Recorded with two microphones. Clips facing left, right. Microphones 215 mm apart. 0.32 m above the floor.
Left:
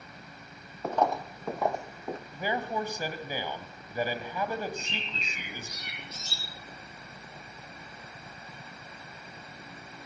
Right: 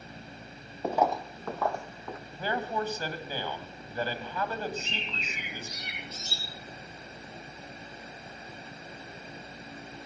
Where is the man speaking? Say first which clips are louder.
Right 1 dB; 15° left (ahead or behind), 2 m.